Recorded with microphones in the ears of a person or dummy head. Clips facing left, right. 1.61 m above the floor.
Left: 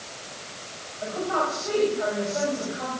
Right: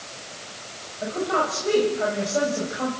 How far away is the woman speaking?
About 8 m.